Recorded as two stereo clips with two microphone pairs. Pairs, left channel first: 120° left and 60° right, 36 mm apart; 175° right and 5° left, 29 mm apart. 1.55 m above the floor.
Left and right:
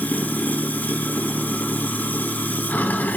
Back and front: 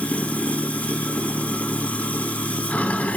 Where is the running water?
160° left, 1.6 m.